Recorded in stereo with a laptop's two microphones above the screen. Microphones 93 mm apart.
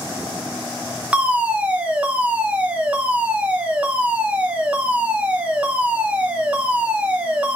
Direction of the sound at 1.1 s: 15° right (ahead or behind).